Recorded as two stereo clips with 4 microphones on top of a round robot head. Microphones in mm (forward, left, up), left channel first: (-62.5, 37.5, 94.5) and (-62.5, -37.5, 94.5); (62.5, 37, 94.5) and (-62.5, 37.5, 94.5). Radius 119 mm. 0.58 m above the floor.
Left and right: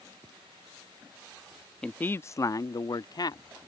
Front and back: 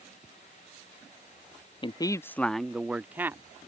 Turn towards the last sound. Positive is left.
turn(degrees=110)